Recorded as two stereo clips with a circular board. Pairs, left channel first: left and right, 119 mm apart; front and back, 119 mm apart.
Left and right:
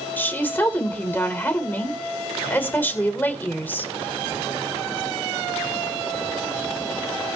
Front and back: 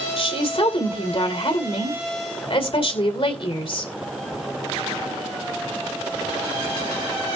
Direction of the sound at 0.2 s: 20° left.